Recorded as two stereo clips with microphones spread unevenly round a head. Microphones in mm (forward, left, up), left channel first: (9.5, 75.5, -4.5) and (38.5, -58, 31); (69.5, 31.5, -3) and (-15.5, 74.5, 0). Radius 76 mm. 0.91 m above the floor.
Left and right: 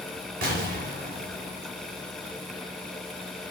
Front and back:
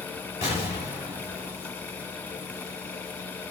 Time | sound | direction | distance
0.4 | an explosion | 80° right | 4 m